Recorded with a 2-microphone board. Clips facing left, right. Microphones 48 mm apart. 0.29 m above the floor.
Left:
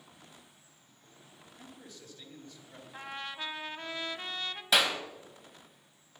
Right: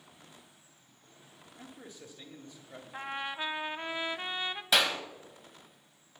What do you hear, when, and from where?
1.6 s a man speaking: 30° right (ahead or behind), 1.4 m
2.9 s a trumpet: 20° right (ahead or behind), 0.6 m
4.7 s a clap: centre (ahead or behind), 1.6 m